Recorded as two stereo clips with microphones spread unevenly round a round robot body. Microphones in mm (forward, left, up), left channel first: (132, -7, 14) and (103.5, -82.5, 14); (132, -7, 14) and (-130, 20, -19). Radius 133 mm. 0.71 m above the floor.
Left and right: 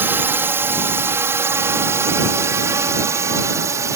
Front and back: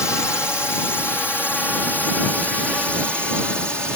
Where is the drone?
90° right; by 4.0 s 100° right.